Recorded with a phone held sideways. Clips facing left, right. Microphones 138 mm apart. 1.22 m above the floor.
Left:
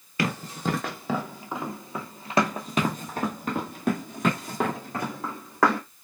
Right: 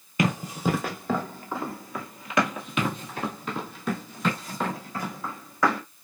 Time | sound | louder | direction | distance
0.2 | running footsteps | right 3 dB | 20° right (ahead or behind) | 1.2 m